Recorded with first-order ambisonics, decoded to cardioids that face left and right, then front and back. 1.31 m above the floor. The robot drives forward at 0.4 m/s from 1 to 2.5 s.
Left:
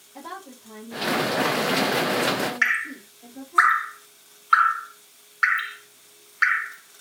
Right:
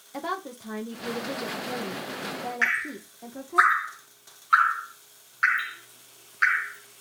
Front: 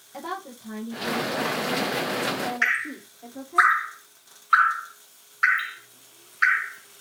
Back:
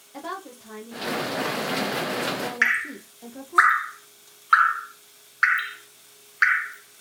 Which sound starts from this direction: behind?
Dripping, at 2.6 s.